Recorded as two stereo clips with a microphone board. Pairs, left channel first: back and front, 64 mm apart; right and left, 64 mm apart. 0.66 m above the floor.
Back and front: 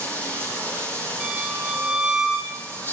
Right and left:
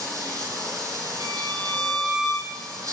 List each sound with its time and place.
0.0 s running water: 120° left, 7 m
1.2 s a violin: 80° left, 7.5 m